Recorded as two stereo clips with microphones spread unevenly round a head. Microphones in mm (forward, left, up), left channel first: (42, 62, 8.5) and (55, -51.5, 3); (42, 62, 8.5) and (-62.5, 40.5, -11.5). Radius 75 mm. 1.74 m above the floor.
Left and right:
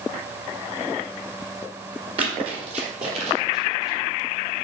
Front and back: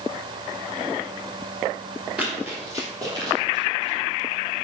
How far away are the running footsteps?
About 2.5 m.